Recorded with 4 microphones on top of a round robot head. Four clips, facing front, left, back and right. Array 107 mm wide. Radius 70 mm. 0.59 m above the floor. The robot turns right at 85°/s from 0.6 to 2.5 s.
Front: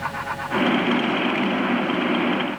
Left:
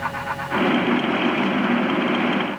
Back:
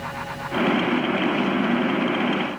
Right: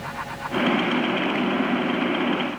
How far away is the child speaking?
I don't hear a child speaking.